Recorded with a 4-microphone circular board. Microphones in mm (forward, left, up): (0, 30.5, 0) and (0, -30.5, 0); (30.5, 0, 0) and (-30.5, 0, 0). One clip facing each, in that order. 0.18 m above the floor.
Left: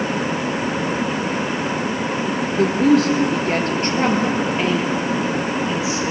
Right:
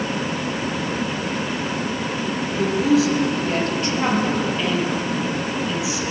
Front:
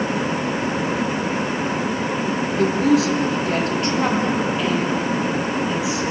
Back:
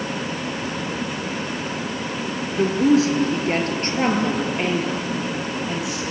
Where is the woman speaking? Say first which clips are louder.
Left 3 dB, back 1 dB; 120° left, 3 m; by 6.0 s 145° left, 6 m.